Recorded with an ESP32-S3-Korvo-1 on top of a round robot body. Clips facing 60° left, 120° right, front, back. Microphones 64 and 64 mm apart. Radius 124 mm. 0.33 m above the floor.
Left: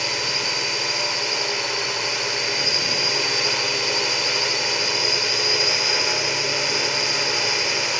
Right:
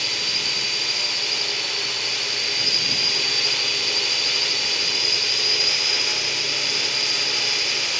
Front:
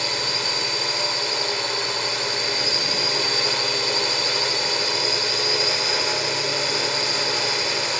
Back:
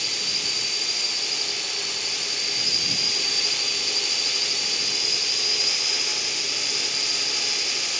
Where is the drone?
5° left.